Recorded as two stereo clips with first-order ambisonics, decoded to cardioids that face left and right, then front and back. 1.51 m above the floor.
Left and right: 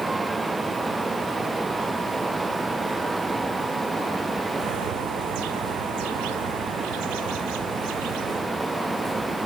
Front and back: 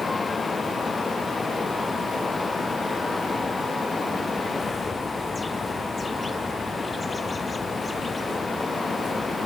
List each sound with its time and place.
4.6 s a bird: 80° right